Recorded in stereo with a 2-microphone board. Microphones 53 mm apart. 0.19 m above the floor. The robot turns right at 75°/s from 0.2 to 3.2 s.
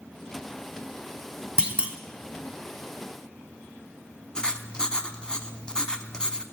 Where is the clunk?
15° right (ahead or behind), 1.0 m; by 2.0 s 25° right (ahead or behind), 1.0 m.